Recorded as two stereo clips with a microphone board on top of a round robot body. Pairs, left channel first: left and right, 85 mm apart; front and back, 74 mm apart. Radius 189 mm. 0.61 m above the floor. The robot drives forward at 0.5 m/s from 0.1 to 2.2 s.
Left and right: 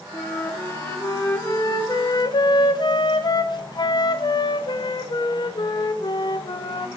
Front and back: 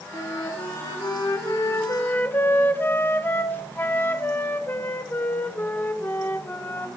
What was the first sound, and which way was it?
A flute, 25° left.